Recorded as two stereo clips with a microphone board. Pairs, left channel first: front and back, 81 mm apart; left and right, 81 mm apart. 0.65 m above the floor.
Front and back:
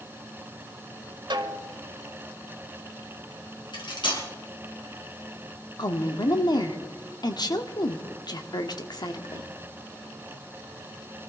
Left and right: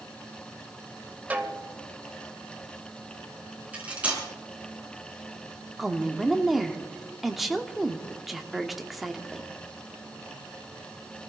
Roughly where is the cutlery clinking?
Ahead.